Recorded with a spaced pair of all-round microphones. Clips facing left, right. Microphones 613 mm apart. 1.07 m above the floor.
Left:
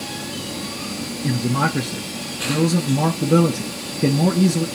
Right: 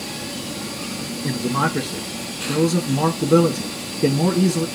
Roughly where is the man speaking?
Centre.